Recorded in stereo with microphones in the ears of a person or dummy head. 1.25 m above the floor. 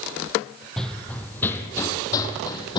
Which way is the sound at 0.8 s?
5° left (ahead or behind).